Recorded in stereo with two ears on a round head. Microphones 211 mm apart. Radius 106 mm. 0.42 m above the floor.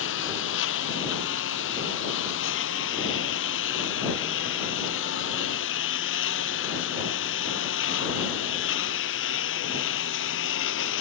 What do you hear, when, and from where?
0.0 s a lawn mower: 60° left (ahead or behind)